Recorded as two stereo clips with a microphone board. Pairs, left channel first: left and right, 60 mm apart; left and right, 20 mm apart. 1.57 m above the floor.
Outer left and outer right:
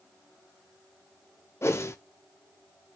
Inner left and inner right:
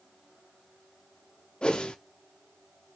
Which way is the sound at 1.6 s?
45° left (ahead or behind).